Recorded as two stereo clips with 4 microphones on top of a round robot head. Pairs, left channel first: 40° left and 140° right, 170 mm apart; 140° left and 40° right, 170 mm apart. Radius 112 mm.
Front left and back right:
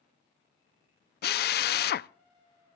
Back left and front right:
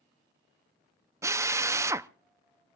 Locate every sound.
1.2 s a drill: 30° left, 0.6 m